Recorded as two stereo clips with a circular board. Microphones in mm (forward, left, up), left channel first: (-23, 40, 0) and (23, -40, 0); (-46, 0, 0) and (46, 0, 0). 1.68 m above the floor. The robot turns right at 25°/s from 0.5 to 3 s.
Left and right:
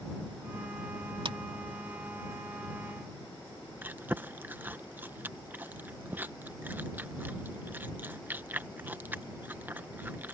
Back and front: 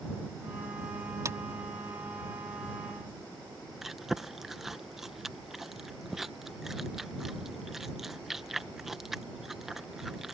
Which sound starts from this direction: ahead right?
A clap, at 1.2 s.